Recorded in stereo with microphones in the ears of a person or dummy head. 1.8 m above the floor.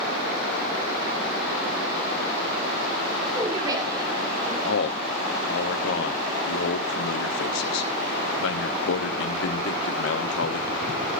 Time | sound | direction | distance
3.4 | a woman speaking | 25° right (ahead or behind) | 5.5 m
4.7 | a man speaking | 75° left (ahead or behind) | 1.2 m